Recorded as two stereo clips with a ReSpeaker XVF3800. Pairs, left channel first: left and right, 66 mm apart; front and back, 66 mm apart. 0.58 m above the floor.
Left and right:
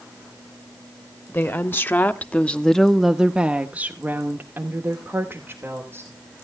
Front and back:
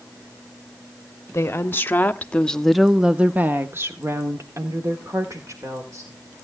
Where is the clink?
I don't hear a clink.